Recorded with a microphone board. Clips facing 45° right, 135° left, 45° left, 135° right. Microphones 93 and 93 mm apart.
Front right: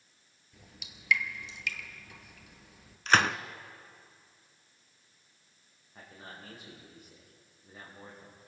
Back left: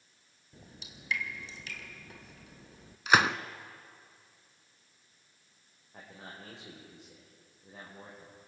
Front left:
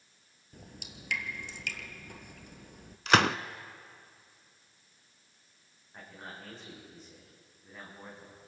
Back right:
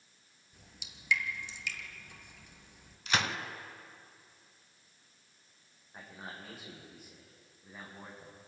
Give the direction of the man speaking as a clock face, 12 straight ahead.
7 o'clock.